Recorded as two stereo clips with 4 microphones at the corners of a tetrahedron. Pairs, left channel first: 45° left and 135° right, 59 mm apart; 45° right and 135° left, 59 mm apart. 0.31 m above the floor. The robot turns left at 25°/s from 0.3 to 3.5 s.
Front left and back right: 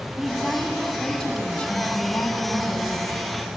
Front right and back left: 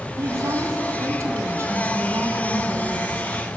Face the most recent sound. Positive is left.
turn(degrees=60)